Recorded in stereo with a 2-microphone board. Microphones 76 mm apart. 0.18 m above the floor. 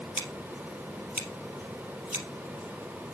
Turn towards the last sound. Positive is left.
turn(degrees=-20)  # may be behind; listen again after turning